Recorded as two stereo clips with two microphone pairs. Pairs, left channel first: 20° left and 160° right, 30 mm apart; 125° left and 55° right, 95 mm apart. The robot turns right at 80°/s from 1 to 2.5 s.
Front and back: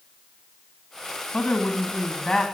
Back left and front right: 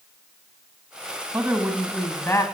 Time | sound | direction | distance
1.3 | a woman speaking | 5° left | 1.3 m